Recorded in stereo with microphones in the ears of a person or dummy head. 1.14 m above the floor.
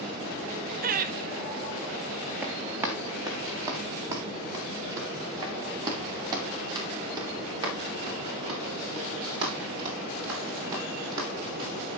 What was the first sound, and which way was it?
Laughter, 35° right (ahead or behind).